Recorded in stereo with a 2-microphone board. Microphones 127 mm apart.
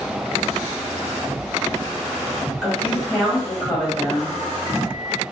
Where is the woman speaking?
5° left (ahead or behind), 1.5 m.